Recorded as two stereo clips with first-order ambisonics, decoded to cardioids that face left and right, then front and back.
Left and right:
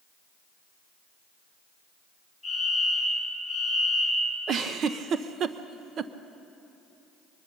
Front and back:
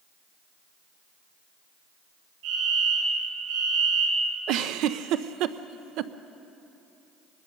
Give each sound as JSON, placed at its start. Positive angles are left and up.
{"t": 2.4, "sound": "a fire alarm", "azimuth_deg": -175, "distance_m": 10.0}
{"t": 4.5, "sound": "a giggle", "azimuth_deg": -145, "distance_m": 0.6}